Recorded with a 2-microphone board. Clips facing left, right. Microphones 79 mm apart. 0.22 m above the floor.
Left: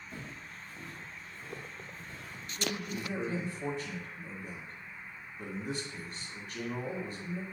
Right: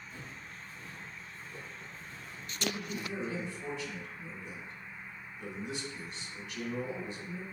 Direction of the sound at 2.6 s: 40° left (ahead or behind).